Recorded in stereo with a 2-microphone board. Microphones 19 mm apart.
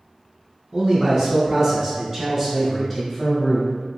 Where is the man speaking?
40° right (ahead or behind), 1.9 m; by 3.7 s 25° left (ahead or behind), 1.3 m.